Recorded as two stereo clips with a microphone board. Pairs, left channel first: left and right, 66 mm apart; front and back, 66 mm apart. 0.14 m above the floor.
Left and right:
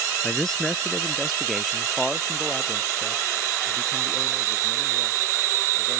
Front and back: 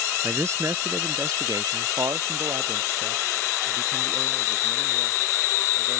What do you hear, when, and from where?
0.2 s a man speaking: 165° left; by 6.0 s 170° right